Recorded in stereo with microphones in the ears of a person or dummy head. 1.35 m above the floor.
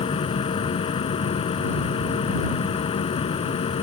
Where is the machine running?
30° left (ahead or behind).